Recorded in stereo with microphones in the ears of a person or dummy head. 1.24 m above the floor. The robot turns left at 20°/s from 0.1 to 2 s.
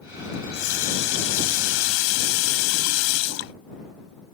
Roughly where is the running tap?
Behind left.